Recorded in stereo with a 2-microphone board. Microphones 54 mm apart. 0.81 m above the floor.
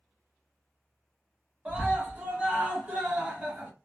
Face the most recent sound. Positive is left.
turn(degrees=-25)  # may be behind; listen again after turning